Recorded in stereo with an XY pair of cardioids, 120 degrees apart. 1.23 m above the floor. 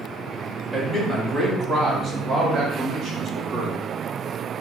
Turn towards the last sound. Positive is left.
turn(degrees=-55)